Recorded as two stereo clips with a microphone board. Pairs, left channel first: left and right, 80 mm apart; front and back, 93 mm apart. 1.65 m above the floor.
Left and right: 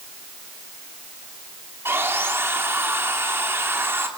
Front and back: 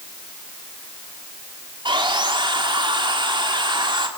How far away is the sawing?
About 3 m.